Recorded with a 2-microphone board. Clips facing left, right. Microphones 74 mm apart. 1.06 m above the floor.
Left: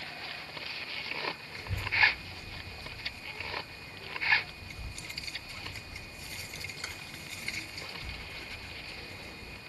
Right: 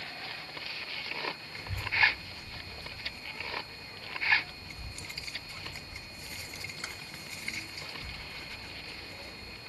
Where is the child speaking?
20° right (ahead or behind), 1.7 m.